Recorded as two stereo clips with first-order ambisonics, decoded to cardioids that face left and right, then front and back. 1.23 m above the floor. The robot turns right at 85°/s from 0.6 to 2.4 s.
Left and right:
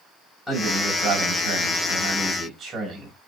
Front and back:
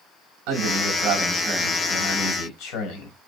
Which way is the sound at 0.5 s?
Straight behind.